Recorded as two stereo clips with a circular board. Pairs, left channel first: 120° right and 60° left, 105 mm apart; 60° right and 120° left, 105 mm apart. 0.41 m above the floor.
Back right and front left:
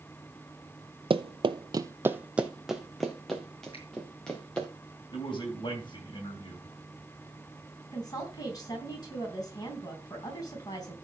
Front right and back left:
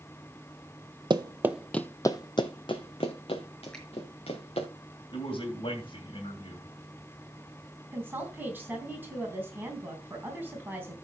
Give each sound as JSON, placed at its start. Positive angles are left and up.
{"t": 1.1, "sound": "running footsteps", "azimuth_deg": 85, "distance_m": 0.7}
{"t": 3.7, "sound": "a finger snap", "azimuth_deg": -145, "distance_m": 5.5}
{"t": 5.1, "sound": "a man speaking", "azimuth_deg": -85, "distance_m": 3.0}
{"t": 7.9, "sound": "a woman speaking", "azimuth_deg": -170, "distance_m": 3.5}